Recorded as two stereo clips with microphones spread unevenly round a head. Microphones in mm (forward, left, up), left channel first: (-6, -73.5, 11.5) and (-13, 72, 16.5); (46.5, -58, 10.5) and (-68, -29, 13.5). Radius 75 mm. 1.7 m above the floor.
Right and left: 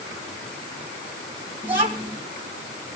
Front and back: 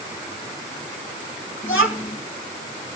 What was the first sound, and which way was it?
A child speaking, 35° left.